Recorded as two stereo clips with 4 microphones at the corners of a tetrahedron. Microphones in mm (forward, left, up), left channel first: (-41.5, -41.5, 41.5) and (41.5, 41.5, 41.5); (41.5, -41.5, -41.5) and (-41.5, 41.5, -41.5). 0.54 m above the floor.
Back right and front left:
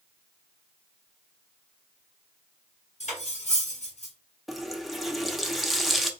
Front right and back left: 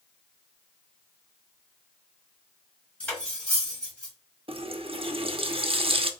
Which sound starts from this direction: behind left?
A running tap, at 4.5 s.